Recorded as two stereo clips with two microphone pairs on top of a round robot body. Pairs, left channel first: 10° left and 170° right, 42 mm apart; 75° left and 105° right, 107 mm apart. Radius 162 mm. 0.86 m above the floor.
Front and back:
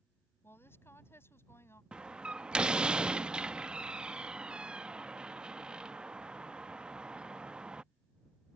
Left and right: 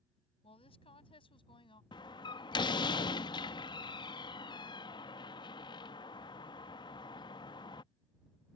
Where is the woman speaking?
40° left; by 1.8 s 30° left.